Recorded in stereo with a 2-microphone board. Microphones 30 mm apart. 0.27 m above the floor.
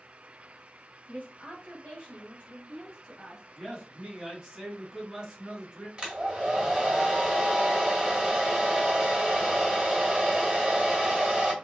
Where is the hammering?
I don't hear hammering.